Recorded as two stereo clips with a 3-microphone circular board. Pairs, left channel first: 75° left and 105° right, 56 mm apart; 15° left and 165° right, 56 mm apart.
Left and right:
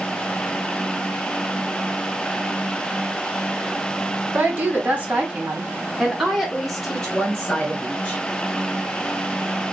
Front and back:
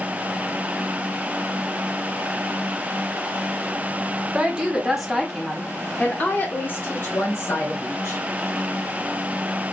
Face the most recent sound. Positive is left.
turn(degrees=10)